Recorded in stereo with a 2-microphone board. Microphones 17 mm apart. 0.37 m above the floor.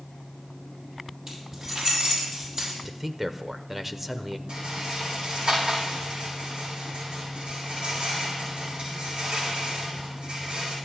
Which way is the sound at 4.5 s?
65° right (ahead or behind).